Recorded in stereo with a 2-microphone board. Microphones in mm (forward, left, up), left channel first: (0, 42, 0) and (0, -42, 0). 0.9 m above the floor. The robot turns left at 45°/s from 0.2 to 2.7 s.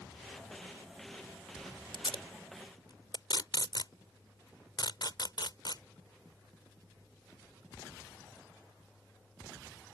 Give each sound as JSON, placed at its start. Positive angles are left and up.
{"t": 1.9, "sound": "tape being pulled", "side_deg": 80}